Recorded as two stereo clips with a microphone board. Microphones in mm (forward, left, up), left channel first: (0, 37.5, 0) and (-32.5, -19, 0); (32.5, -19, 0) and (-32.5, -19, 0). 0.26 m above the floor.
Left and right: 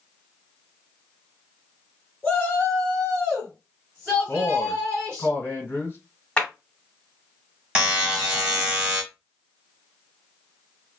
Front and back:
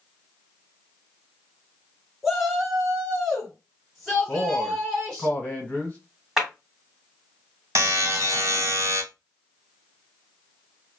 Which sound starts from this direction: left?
A shout, at 2.2 s.